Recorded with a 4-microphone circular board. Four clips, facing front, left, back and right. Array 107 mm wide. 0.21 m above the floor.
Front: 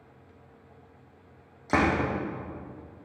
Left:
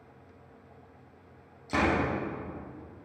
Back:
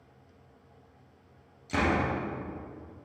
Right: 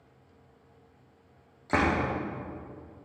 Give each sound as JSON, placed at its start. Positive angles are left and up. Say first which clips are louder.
{"t": 1.7, "sound": "a door slam", "louder": "right 1 dB, front 3 dB", "azimuth_deg": -30, "distance_m": 7.0}